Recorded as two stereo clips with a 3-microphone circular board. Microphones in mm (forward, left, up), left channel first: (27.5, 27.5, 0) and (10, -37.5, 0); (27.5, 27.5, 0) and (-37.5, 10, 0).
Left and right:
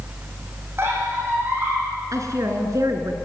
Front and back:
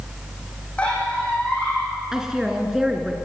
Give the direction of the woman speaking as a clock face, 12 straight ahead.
3 o'clock.